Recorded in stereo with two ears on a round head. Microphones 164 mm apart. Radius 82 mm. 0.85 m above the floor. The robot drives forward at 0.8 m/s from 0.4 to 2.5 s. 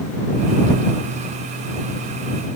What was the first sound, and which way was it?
Only background noise.